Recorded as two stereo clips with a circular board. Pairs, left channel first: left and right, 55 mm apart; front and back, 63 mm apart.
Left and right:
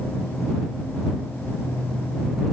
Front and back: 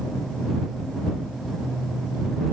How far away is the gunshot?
I don't hear a gunshot.